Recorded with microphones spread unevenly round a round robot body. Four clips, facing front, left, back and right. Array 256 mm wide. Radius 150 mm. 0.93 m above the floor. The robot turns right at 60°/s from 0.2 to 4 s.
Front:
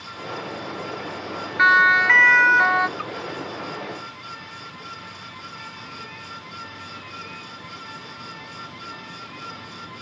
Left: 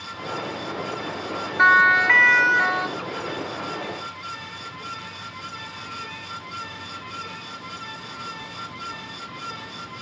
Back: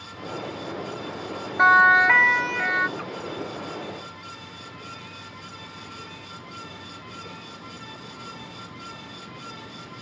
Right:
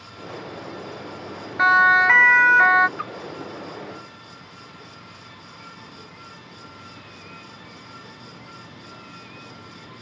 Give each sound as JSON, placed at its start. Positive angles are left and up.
{"t": 1.6, "sound": "a siren", "azimuth_deg": -160}
{"t": 3.0, "sound": "a splash", "azimuth_deg": -110}